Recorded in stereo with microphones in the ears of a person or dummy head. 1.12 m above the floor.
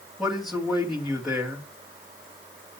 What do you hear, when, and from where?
0.2 s a man speaking: centre (ahead or behind), 1.8 m